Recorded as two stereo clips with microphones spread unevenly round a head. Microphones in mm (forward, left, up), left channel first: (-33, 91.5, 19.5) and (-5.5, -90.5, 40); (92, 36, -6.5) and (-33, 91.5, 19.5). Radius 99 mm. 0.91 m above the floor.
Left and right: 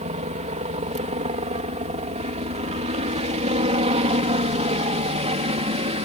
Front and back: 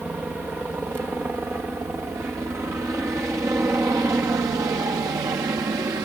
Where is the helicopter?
115° right; by 6.1 s 135° right.